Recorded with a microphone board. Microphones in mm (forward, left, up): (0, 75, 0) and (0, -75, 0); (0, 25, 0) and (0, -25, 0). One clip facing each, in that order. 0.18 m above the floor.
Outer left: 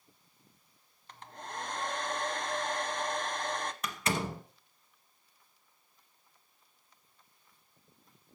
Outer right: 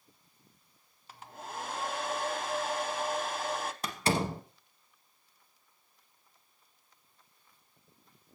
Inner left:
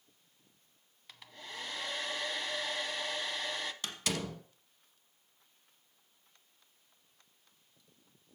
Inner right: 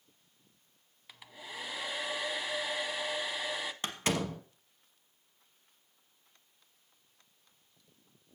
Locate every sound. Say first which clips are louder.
1.1 s a hair dryer: outer right 1 dB, inner right 1 dB; 5° right (ahead or behind), 0.6 m
3.8 s a door slam: outer right 5 dB, inner right 8 dB; 30° right (ahead or behind), 1.1 m